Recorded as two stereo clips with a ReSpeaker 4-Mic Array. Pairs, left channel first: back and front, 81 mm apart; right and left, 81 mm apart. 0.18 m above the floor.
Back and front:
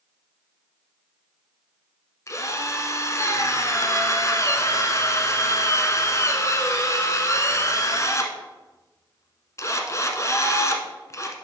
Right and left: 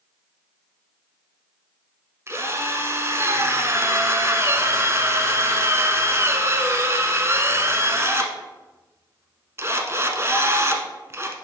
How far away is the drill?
About 0.9 m.